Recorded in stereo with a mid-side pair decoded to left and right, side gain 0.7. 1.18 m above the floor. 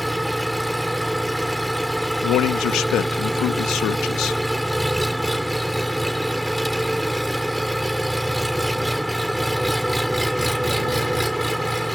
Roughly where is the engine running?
Ahead.